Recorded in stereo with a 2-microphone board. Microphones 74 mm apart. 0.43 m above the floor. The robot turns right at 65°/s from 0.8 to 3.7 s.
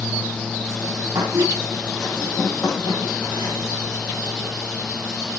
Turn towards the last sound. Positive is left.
turn(degrees=110)